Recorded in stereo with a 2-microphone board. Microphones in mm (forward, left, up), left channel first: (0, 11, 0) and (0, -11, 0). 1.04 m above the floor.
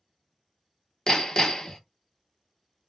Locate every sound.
1.1 s hammering: 30° left (ahead or behind), 0.5 m